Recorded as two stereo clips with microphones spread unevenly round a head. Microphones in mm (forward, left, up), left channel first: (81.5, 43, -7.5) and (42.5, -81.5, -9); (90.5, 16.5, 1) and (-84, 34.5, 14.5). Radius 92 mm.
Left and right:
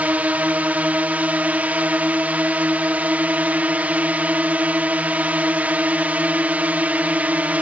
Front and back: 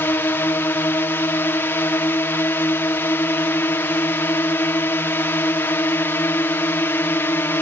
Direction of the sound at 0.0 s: 50° right.